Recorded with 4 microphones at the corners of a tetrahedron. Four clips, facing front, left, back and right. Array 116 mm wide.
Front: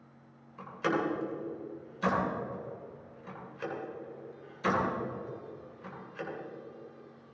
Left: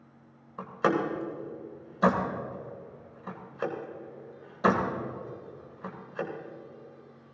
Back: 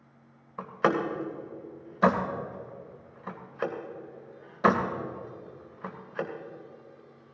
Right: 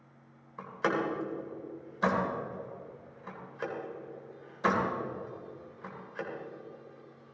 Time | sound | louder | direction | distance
0.6 | a door slam | left 4 dB, back 5 dB | 155° left | 2 m